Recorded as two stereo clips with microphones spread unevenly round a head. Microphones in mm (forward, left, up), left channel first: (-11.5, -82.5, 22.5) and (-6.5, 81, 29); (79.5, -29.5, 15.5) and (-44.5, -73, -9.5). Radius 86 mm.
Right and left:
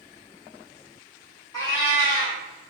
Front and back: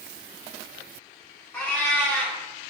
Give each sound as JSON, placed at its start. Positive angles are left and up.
{"t": 1.5, "sound": "a cat meowing", "azimuth_deg": -30, "distance_m": 1.4}